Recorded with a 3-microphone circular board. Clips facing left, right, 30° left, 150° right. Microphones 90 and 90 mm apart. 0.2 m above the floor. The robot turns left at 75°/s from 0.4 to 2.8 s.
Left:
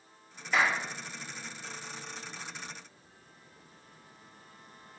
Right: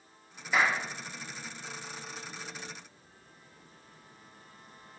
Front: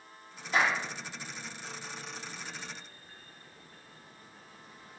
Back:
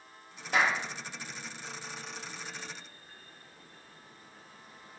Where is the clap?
175° right, 4 m; by 0.8 s 170° left, 4 m.